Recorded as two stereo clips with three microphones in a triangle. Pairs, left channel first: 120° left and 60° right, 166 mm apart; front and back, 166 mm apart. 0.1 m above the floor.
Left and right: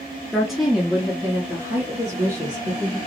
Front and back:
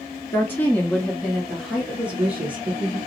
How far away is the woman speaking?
About 1.2 m.